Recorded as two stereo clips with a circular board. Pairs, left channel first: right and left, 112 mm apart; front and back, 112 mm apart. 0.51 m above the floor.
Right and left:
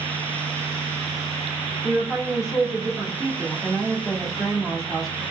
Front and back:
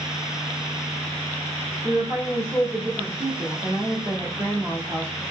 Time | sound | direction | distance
1.8 | a woman speaking | straight behind | 1.6 m